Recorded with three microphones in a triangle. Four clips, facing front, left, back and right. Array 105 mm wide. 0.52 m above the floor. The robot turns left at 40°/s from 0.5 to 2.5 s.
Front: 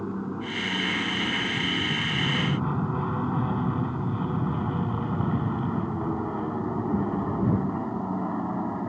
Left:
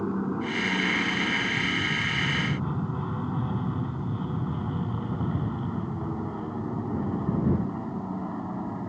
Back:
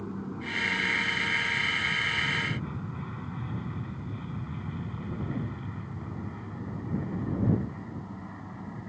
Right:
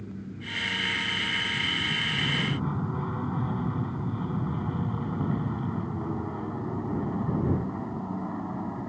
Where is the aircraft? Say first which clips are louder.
Left 11 dB, front 5 dB; 70° left; by 8.9 s 5° right.